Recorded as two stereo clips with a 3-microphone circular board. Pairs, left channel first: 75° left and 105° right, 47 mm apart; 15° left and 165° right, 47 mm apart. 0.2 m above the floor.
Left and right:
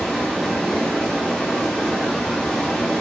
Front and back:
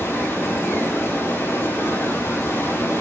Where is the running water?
5° left, 9.5 m.